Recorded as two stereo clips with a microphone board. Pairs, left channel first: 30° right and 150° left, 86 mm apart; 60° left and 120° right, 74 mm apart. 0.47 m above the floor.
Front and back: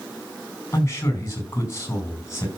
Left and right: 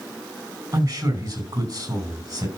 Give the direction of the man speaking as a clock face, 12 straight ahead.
3 o'clock.